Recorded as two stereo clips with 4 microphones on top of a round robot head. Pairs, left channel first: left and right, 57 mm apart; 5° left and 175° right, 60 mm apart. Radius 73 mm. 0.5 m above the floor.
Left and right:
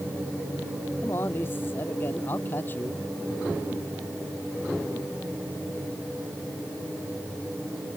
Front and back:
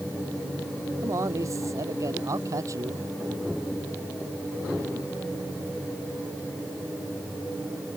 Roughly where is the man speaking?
Behind left.